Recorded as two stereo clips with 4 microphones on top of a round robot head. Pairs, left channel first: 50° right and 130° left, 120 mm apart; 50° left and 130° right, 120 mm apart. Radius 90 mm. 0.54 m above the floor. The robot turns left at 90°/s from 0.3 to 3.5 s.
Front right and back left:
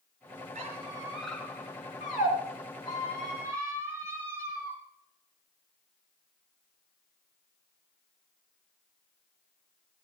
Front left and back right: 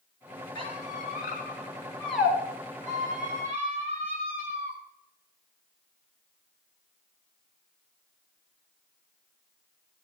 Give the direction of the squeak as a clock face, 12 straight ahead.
9 o'clock.